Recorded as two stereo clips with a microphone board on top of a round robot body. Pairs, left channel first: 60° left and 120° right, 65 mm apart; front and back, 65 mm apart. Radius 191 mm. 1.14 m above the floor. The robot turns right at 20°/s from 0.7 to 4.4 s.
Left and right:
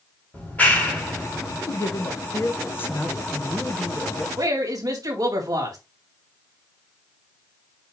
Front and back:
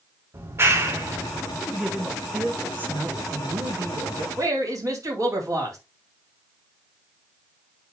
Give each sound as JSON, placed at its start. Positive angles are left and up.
{"t": 0.3, "sound": "a clap", "azimuth_deg": 130, "distance_m": 2.5}
{"t": 1.7, "sound": "a man speaking", "azimuth_deg": 95, "distance_m": 1.2}
{"t": 4.4, "sound": "a woman speaking", "azimuth_deg": -145, "distance_m": 4.0}